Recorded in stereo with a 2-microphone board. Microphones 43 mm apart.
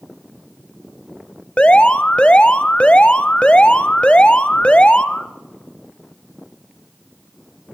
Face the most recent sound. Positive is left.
turn(degrees=25)  # may be behind; listen again after turning